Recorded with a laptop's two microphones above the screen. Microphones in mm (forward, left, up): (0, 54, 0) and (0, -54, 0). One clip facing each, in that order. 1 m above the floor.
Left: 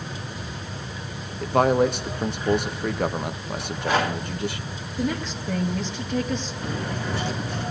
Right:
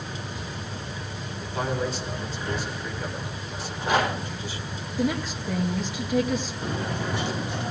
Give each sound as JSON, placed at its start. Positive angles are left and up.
{"t": 1.4, "sound": "a man speaking", "side_deg": 60, "distance_m": 0.8}
{"t": 3.6, "sound": "a rattle", "side_deg": -20, "distance_m": 4.0}
{"t": 5.0, "sound": "a woman speaking", "side_deg": 0, "distance_m": 1.2}
{"t": 6.6, "sound": "cutlery clinking", "side_deg": -20, "distance_m": 1.6}